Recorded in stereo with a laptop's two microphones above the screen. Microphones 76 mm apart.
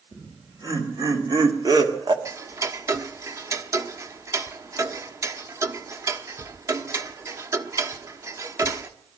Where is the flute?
No flute in this recording.